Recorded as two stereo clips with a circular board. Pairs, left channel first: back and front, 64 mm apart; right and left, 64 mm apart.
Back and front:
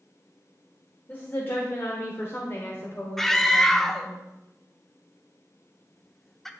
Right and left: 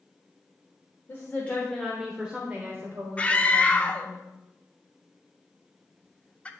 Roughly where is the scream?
Right.